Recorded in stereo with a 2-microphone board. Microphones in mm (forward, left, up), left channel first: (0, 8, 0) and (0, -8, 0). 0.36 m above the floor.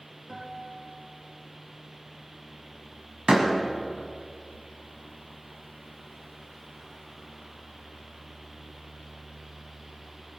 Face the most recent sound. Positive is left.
turn(degrees=-35)  # may be behind; listen again after turning